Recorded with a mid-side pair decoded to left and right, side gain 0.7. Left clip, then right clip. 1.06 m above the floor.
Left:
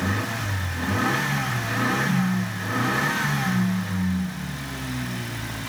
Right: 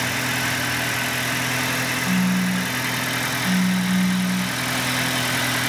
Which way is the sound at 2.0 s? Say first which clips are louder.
Right 4 dB; 30° right.